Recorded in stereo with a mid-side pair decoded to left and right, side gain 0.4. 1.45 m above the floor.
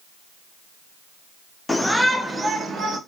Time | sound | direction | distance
1.7 | a shout | 15° left | 1.3 m